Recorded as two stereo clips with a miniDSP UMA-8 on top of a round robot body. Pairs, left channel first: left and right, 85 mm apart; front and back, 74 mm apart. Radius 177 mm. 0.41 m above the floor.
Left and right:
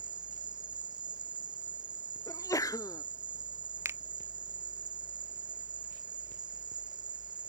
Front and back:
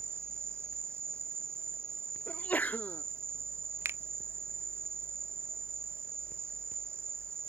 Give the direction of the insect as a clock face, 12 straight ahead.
4 o'clock.